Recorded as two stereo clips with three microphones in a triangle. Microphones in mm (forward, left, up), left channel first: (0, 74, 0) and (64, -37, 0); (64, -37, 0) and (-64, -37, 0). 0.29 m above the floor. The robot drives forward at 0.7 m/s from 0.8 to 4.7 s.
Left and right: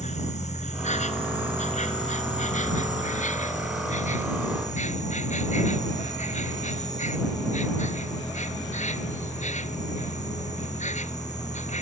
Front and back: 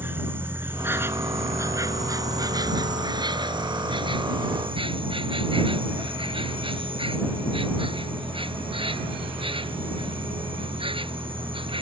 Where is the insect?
105° left; by 11.8 s 135° left.